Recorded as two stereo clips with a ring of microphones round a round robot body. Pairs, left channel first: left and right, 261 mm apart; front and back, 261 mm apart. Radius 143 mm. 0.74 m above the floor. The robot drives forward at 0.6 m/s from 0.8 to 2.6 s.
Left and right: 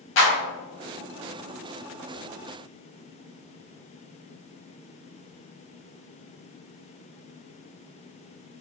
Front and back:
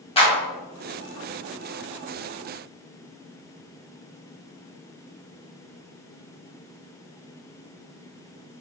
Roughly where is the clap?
Ahead left.